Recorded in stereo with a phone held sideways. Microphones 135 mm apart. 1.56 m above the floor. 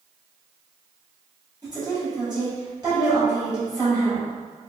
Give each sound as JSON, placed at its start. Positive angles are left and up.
{"t": 1.6, "sound": "a woman speaking", "side_deg": -30, "distance_m": 1.9}